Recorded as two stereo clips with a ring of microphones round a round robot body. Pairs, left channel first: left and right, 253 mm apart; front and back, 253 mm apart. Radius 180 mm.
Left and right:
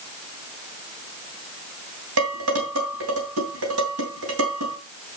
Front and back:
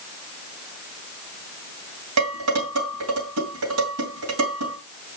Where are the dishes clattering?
140° right, 3 m.